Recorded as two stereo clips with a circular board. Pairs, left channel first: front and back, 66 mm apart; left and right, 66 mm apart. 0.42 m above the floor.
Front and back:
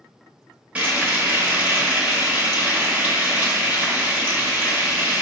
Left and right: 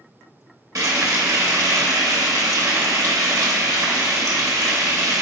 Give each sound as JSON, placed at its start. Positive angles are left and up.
{"t": 0.8, "sound": "frying", "azimuth_deg": -115, "distance_m": 0.9}